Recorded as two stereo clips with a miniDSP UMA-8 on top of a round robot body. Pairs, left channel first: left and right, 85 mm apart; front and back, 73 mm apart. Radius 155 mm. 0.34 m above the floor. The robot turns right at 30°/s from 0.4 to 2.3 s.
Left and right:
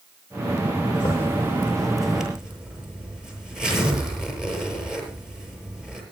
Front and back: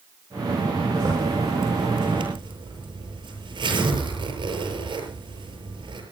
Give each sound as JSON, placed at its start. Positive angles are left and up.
{"t": 0.9, "sound": "a zipper", "azimuth_deg": 145, "distance_m": 7.5}